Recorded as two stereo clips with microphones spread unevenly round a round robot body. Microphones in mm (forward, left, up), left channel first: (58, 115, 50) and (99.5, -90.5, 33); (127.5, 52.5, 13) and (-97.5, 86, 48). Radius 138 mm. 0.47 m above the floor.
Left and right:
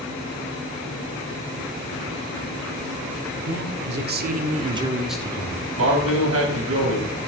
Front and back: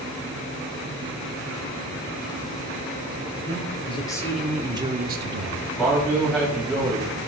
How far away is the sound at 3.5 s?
About 1.8 m.